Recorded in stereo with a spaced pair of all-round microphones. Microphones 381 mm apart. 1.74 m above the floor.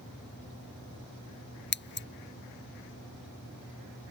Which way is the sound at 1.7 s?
30° left (ahead or behind).